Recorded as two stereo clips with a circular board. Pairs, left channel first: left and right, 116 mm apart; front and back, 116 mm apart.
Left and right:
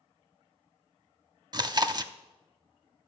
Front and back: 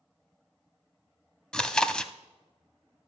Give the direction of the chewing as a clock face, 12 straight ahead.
3 o'clock.